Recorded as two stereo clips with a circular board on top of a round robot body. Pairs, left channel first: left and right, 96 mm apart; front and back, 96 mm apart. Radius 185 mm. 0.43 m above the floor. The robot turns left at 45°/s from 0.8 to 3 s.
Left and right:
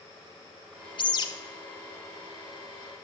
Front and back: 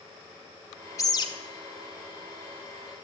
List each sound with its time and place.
1.0 s a bird: 55° left, 1.5 m; by 1.3 s 45° left, 1.5 m